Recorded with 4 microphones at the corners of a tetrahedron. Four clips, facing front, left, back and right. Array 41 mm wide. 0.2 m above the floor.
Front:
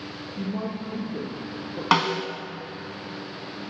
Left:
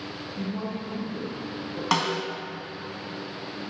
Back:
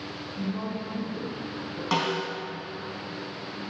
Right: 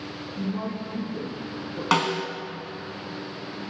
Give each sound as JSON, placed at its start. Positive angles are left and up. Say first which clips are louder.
{"t": 0.4, "sound": "a woman speaking", "louder": "right 2 dB, front 2 dB", "azimuth_deg": 10, "distance_m": 5.0}
{"t": 1.9, "sound": "a snare drum", "louder": "right 2 dB, front 5 dB", "azimuth_deg": -10, "distance_m": 1.9}